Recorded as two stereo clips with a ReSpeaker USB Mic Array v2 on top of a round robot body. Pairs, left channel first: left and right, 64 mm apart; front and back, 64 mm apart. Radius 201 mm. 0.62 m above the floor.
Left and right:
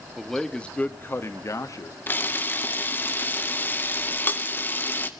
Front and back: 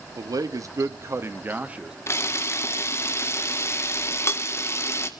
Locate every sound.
0.1 s a man speaking: straight behind, 1.7 m; by 2.0 s 105° left, 1.7 m
2.1 s a camera shutter: 35° left, 2 m